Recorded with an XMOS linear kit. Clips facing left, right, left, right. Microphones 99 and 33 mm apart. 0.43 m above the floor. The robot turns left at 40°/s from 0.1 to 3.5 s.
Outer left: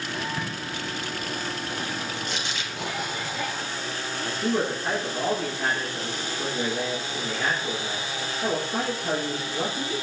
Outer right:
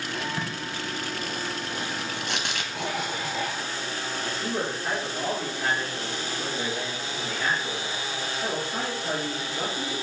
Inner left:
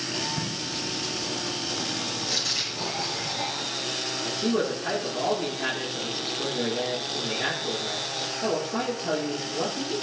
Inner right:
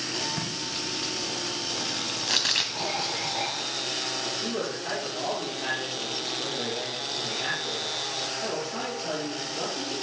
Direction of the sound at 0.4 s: 25° right (ahead or behind).